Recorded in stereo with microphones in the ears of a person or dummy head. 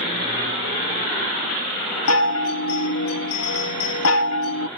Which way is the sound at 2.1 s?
85° left.